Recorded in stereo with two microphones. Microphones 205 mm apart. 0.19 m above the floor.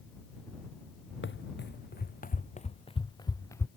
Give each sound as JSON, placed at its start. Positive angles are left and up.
{"t": 1.2, "sound": "running footsteps", "side_deg": 70}